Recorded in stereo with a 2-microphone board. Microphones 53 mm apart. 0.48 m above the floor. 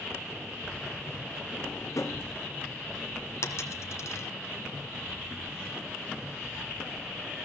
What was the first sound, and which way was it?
A drawer, 75° left (ahead or behind).